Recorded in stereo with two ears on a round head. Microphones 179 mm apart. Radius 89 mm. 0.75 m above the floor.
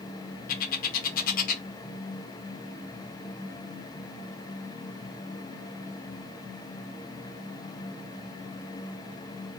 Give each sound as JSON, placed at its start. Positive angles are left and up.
{"t": 0.5, "sound": "a bird", "side_deg": 45, "distance_m": 0.5}